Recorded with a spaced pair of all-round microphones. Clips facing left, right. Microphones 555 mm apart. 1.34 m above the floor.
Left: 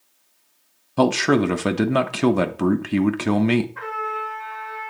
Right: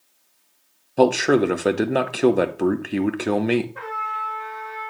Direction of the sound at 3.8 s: 55° right (ahead or behind).